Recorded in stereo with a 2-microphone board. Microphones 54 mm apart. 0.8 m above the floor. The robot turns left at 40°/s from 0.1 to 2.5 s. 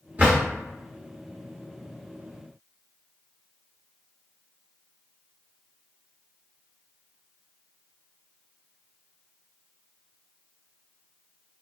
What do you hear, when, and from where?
0.2 s a drawer: 35° right (ahead or behind), 1.3 m; by 0.4 s 40° right (ahead or behind), 1.3 m